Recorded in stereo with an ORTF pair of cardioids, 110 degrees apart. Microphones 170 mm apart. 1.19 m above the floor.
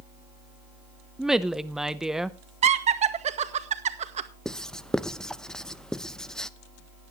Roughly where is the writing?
Ahead.